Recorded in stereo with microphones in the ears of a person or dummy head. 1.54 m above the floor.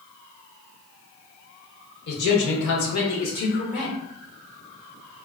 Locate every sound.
2.1 s a man speaking: 60° left (ahead or behind), 1.1 m; by 4.0 s 30° left (ahead or behind), 0.9 m